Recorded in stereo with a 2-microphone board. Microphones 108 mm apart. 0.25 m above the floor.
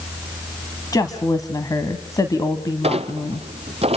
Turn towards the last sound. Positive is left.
turn(degrees=-65)  # may be behind; listen again after turning